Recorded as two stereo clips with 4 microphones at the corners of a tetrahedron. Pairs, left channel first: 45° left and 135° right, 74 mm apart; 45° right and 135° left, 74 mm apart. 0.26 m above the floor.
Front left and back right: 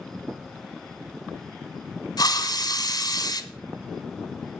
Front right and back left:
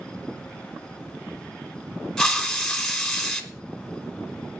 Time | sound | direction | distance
2.2 | a hiss | 40° left | 1.6 m